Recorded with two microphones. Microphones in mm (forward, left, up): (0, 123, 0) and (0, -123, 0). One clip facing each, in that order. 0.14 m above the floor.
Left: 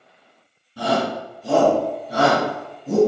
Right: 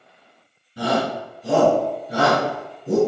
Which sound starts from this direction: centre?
A shout, at 0.8 s.